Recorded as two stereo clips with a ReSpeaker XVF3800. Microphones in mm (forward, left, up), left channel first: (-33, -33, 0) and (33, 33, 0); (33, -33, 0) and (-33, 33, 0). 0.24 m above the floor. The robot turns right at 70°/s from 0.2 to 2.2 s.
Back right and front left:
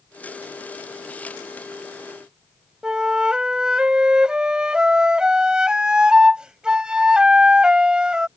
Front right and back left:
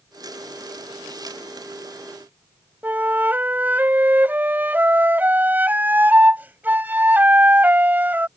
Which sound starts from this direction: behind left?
A flute, at 2.8 s.